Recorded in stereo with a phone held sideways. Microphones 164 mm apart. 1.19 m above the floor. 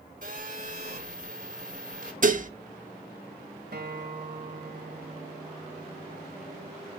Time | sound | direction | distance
0.2 | a phone buzzing | 55° right (ahead or behind) | 4.5 m
2.2 | dishes clattering | 55° right (ahead or behind) | 0.7 m
3.7 | a guitar | 85° right | 1.4 m